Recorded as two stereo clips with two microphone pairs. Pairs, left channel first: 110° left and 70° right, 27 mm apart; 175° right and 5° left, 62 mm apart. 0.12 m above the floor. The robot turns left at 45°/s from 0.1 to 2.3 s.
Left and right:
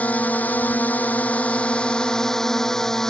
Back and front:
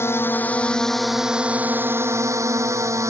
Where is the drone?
140° left; by 3.1 s 40° left.